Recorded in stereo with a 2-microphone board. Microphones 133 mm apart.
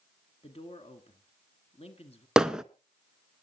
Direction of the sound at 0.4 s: 50° left (ahead or behind).